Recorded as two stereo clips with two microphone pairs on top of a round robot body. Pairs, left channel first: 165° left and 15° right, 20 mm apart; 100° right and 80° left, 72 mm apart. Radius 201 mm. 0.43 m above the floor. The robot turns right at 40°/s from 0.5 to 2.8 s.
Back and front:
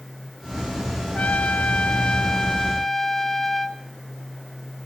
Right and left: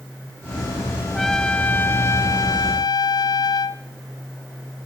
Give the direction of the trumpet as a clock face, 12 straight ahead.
6 o'clock.